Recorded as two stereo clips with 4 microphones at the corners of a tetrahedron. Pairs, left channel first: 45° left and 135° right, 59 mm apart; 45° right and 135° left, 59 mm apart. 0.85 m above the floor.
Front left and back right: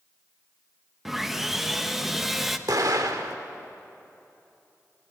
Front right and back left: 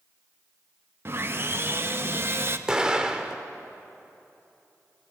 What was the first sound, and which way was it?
Sawing, 140° left.